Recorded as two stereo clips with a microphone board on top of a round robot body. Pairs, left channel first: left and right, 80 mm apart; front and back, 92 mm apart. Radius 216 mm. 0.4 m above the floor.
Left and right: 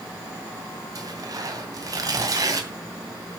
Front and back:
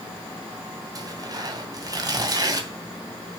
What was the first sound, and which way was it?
Tearing paper, 135° right.